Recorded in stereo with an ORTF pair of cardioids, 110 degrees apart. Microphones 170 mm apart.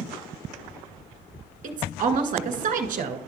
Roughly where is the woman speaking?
Ahead right.